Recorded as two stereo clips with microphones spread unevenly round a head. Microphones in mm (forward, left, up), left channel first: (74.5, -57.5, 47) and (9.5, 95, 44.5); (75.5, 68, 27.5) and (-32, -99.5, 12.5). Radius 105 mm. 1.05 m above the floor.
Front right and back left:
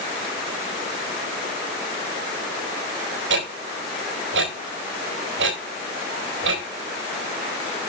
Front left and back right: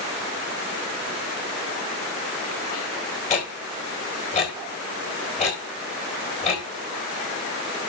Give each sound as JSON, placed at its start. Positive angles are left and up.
{"t": 3.3, "sound": "ticking", "azimuth_deg": 120, "distance_m": 3.5}